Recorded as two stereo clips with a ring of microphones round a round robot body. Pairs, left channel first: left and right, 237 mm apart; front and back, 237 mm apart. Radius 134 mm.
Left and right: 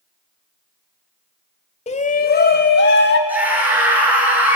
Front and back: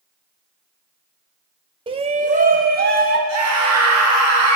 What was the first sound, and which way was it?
A shout, 130° left.